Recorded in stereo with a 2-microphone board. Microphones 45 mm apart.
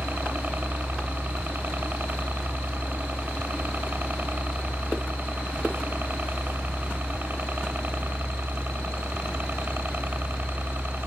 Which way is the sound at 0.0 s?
50° right (ahead or behind).